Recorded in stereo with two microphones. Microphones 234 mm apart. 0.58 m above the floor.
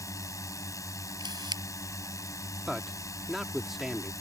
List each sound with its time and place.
0.0 s a drone: 15° left (ahead or behind)
1.2 s a camera shutter: 20° right (ahead or behind)
2.7 s a man speaking: centre (ahead or behind)